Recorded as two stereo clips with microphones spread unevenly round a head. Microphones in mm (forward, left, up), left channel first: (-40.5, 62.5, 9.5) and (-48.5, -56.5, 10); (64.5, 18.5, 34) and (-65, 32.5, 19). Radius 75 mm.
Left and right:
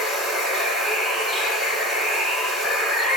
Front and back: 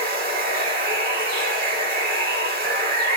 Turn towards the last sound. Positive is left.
turn(degrees=175)